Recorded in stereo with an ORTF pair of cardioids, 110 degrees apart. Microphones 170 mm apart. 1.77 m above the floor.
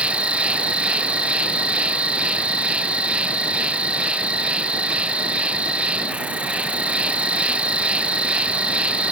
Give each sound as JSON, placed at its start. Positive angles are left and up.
{"t": 0.0, "sound": "an insect", "azimuth_deg": -5}